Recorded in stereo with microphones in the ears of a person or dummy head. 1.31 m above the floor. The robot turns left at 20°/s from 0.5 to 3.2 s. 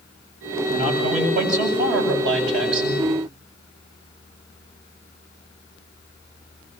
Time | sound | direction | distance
0.7 | a man speaking | 35° right | 8.5 m